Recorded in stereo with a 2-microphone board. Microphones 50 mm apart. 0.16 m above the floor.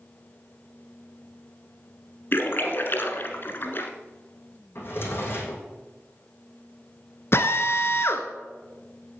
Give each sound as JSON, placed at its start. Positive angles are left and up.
{"t": 2.3, "sound": "a splash", "side_deg": 50, "distance_m": 1.3}
{"t": 4.8, "sound": "a drawer", "side_deg": 50, "distance_m": 3.0}
{"t": 7.3, "sound": "a drill", "side_deg": 60, "distance_m": 1.1}